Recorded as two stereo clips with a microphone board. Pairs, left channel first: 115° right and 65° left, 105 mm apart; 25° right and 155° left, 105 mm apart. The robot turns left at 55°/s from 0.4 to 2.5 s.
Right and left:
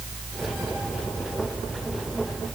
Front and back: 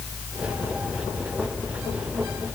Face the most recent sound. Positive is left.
No sound to turn to.